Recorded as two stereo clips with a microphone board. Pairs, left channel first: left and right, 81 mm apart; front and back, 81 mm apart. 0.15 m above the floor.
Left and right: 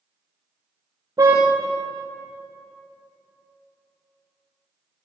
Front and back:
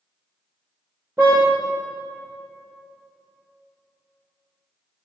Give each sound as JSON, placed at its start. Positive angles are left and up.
{"t": 1.2, "sound": "a car horn", "azimuth_deg": -120, "distance_m": 6.5}